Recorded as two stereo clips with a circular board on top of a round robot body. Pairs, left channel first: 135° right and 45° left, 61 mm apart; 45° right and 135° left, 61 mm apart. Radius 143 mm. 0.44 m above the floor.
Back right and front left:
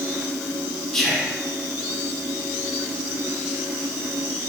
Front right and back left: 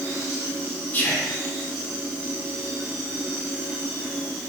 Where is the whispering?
55° right, 0.9 m.